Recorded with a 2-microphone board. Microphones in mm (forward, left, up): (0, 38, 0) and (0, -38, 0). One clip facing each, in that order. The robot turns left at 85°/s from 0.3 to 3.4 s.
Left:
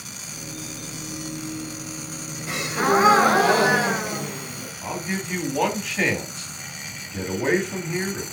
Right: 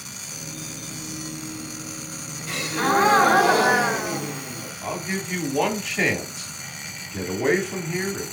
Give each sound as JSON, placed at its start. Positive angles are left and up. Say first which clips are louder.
{"t": 2.5, "sound": "a gasp", "louder": "left 1 dB", "side_deg": 20, "distance_m": 1.0}
{"t": 4.8, "sound": "a man speaking", "louder": "even", "side_deg": 0, "distance_m": 1.3}